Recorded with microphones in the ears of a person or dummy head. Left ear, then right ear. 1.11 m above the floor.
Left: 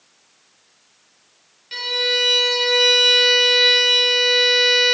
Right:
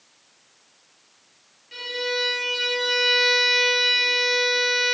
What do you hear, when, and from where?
1.7 s a violin: 40° left (ahead or behind), 2.5 m